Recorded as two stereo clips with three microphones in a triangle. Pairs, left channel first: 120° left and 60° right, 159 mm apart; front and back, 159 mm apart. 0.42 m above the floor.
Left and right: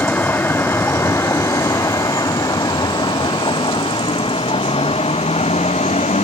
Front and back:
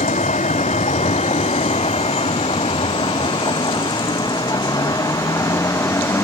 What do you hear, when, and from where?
0.0 s a vehicle: 40° left; by 6.2 s 75° left